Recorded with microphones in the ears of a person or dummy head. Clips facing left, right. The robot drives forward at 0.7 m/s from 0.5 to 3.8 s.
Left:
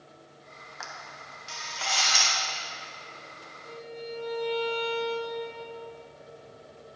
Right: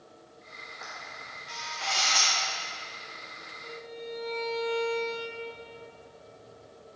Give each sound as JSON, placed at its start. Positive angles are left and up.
{"t": 0.8, "sound": "a camera shutter", "side_deg": 85, "distance_m": 1.1}
{"t": 3.6, "sound": "a violin", "side_deg": -50, "distance_m": 1.0}